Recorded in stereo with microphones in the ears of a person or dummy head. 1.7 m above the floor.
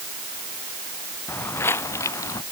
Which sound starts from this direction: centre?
Footsteps, at 1.3 s.